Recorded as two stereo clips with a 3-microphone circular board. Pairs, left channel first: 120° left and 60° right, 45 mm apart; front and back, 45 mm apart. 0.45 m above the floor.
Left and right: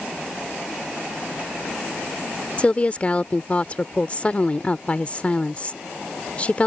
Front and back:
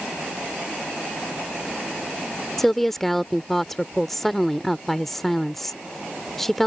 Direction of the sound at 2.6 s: 80° left.